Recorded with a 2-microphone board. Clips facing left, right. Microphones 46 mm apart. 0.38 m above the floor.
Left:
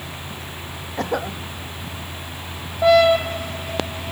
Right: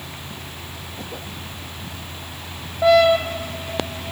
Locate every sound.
1.0 s a cough: 65° left (ahead or behind)